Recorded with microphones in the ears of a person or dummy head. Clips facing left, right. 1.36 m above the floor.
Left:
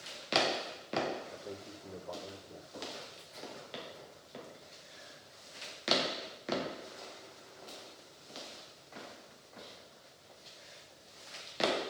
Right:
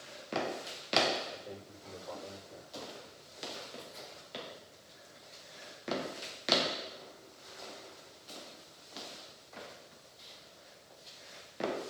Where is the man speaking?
30° left (ahead or behind), 4.5 m.